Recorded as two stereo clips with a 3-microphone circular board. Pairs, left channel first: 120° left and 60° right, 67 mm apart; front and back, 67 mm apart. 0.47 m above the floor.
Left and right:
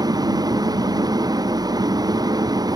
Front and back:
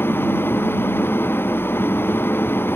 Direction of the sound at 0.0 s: 55° right.